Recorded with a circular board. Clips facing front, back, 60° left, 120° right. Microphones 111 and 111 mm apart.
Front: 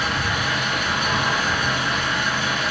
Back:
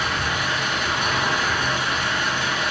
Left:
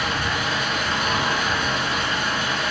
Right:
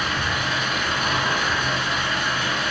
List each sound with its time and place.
0.0 s an engine running: 120° left, 1.1 m